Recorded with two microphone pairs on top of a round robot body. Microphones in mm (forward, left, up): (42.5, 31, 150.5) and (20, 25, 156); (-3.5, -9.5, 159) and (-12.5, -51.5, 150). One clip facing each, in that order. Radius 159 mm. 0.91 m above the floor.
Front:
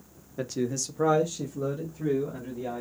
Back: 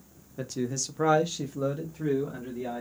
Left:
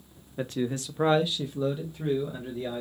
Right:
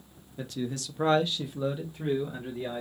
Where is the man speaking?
45° left, 0.8 m; by 2.8 s 155° right, 1.5 m.